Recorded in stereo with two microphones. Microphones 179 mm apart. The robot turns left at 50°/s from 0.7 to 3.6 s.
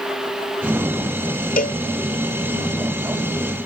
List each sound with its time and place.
1.6 s a cowbell: 55° left (ahead or behind); by 1.8 s 50° left (ahead or behind)